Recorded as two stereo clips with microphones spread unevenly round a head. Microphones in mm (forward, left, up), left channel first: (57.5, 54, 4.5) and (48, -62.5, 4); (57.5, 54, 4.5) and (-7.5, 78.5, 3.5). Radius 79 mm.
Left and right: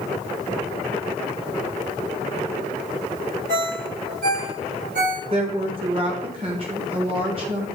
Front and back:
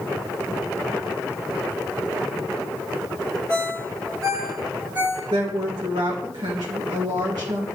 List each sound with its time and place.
3.5 s a ringtone: 130° right, 1.5 m
5.3 s a woman speaking: 150° right, 1.9 m